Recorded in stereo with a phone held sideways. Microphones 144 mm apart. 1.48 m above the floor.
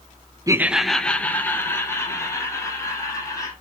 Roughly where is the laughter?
Right.